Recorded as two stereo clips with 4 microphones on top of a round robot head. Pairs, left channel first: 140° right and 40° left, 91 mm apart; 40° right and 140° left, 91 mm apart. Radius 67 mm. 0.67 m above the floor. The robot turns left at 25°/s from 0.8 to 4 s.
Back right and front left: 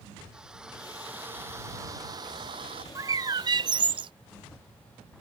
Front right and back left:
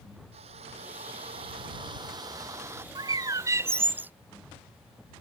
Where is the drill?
125° left; by 2.9 s 75° left.